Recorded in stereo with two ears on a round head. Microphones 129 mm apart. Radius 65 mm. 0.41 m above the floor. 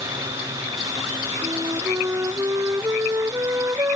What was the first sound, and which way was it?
A flute, 20° right (ahead or behind).